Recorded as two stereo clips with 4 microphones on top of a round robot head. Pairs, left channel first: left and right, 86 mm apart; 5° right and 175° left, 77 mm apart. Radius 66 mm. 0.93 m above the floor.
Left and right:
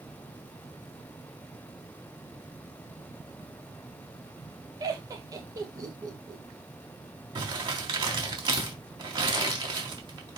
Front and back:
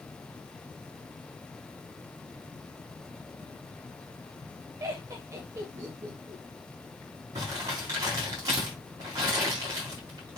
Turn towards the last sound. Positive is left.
turn(degrees=-125)